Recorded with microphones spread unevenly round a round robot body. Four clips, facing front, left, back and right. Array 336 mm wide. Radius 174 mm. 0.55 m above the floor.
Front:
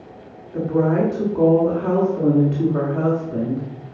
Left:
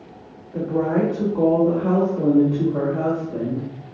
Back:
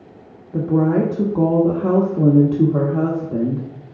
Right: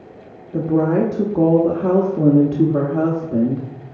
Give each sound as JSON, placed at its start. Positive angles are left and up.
{"t": 0.5, "sound": "a woman speaking", "azimuth_deg": -130, "distance_m": 1.0}